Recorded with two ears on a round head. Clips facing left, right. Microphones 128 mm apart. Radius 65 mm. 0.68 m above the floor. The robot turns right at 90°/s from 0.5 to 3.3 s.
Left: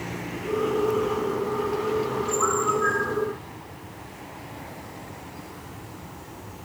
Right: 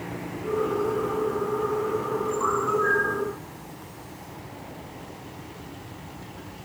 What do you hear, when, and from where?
2.4 s a bird: 100° left, 9.5 m; by 3.2 s 175° left, 9.5 m